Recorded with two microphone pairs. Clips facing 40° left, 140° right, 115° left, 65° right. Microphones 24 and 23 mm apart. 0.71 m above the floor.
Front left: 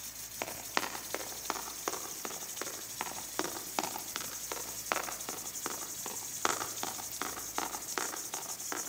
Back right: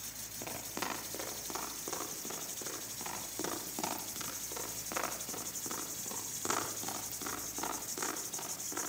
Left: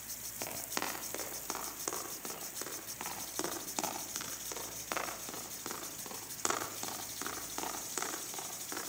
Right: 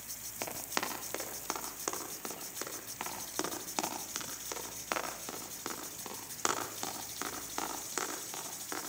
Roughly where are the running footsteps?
Ahead.